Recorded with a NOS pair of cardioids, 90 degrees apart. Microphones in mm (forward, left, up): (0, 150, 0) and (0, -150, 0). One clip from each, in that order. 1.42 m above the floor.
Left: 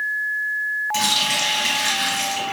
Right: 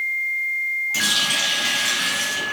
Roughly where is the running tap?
Ahead.